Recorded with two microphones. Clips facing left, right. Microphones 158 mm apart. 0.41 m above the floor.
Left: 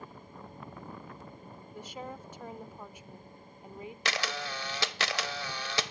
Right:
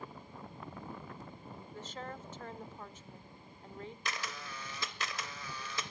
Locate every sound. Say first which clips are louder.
1.7 s a woman speaking: left 3 dB; 10° left (ahead or behind), 0.8 m
4.0 s a camera shutter: left 10 dB; 80° left, 0.5 m